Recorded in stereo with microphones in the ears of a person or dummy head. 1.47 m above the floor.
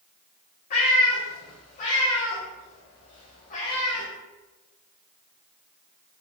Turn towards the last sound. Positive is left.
turn(degrees=30)  # may be behind; listen again after turning